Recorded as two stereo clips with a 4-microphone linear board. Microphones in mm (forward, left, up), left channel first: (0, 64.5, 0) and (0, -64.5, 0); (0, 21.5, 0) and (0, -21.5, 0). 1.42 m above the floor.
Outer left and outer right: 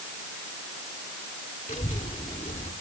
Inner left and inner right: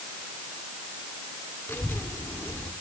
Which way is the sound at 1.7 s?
70° left (ahead or behind).